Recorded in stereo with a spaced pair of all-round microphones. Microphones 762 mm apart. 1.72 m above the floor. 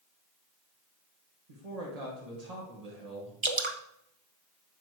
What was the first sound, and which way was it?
A man speaking, 55° right (ahead or behind).